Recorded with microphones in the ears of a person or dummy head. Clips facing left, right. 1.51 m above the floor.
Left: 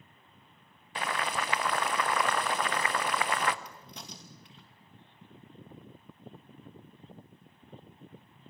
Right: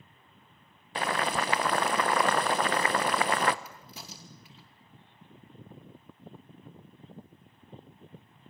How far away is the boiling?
About 0.6 m.